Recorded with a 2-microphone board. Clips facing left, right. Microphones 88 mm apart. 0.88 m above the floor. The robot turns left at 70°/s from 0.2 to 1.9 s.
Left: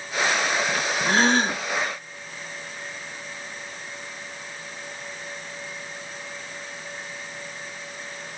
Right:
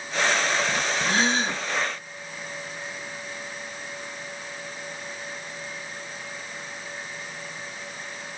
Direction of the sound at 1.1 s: 130° left.